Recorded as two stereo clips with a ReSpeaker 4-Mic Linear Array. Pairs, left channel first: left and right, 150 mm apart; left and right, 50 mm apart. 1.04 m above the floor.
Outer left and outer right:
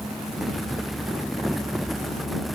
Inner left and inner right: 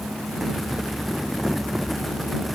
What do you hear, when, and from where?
Only background noise.